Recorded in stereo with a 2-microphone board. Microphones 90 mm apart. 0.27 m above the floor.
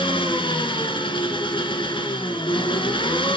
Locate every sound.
0.0 s an engine running: 70° left (ahead or behind), 1.6 m